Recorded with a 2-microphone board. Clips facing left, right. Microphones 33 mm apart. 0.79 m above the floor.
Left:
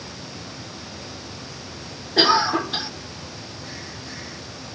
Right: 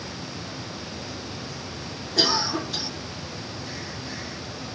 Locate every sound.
2.2 s a cough: 35° left (ahead or behind), 0.6 m